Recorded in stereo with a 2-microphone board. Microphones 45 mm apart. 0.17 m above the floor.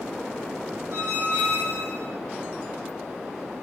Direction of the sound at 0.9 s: 70° right (ahead or behind).